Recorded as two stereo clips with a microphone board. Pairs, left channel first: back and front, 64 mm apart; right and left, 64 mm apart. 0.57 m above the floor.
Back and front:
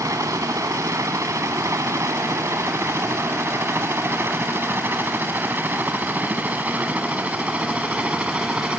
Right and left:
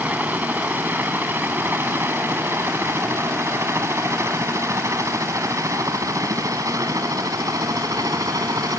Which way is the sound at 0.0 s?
30° left.